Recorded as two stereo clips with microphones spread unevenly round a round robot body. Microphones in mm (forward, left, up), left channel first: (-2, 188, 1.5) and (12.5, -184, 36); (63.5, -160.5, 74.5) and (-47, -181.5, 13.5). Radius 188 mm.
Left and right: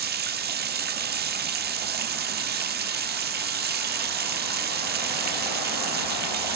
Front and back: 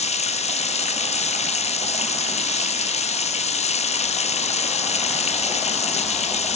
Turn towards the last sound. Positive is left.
turn(degrees=-30)